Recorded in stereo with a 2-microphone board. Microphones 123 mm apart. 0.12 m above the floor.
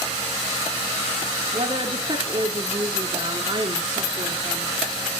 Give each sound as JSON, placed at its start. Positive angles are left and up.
{"t": 1.5, "sound": "a woman speaking", "side_deg": -40, "distance_m": 1.4}